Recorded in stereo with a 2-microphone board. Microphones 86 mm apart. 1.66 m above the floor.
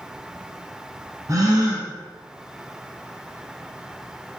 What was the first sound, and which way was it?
A gasp, 40° right (ahead or behind).